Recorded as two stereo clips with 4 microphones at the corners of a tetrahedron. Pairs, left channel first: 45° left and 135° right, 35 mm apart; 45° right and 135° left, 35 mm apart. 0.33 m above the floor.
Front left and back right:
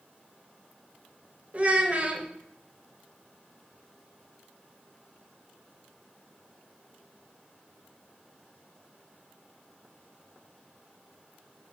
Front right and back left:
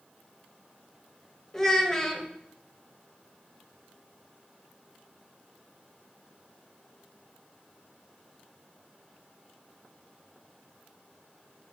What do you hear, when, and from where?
1.5 s a child speaking: 110° right, 0.7 m